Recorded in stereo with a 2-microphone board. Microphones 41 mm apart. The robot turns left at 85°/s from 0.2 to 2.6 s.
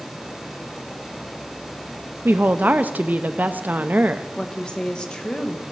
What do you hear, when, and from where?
2.2 s a woman speaking: 65° right (ahead or behind), 0.5 m; by 4.3 s 45° right (ahead or behind), 0.5 m
4.4 s a woman speaking: 20° left (ahead or behind), 1.2 m